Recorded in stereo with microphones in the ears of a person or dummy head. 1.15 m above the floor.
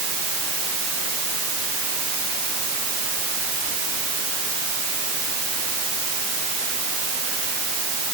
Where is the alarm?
I don't hear an alarm.